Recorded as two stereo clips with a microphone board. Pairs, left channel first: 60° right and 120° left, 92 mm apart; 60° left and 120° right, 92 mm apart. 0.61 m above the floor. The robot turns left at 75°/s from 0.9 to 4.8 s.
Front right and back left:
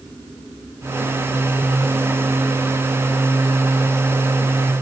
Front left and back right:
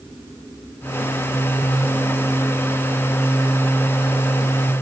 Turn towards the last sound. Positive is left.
No sound to turn to.